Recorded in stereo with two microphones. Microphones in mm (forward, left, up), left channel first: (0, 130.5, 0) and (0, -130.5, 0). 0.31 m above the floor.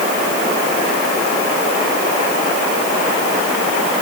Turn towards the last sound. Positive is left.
No sound to turn to.